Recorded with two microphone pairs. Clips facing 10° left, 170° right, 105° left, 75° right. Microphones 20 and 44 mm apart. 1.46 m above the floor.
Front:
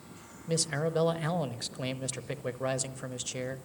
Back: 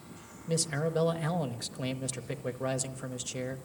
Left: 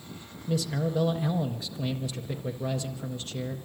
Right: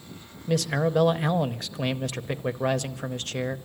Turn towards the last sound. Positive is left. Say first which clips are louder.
# front 1 dB, right 5 dB
turn(degrees=-65)